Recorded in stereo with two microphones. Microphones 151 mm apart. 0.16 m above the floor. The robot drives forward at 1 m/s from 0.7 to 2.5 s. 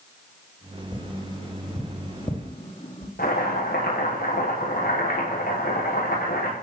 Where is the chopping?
80° left, 8 m.